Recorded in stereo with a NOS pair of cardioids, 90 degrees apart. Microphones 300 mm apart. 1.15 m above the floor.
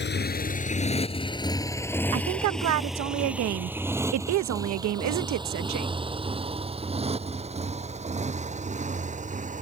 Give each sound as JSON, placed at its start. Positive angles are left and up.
{"t": 0.0, "sound": "a motorcycle", "azimuth_deg": 35}
{"t": 2.1, "sound": "a woman speaking", "azimuth_deg": -65}